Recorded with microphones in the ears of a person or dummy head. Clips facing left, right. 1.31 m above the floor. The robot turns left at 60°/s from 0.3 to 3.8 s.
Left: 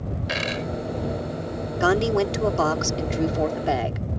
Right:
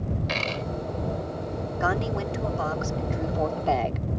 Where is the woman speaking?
130° left; by 4.1 s 10° left.